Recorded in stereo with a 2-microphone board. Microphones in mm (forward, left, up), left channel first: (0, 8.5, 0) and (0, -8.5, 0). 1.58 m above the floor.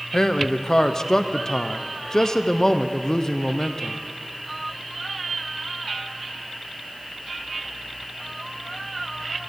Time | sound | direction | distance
0.1 | a man speaking | 40° left (ahead or behind) | 0.6 m